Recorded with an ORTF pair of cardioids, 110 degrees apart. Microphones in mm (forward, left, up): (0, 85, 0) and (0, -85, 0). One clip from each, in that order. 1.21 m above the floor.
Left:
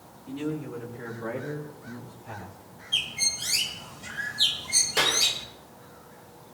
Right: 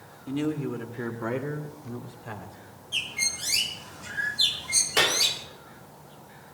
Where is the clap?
30° right, 3 m.